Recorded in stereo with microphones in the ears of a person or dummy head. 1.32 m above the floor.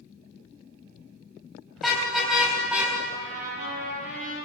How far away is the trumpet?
About 7.5 m.